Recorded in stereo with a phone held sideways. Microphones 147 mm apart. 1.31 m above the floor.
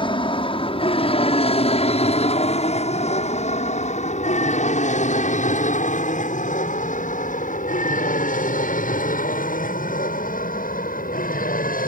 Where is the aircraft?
35° left (ahead or behind); by 11.9 s 70° left (ahead or behind).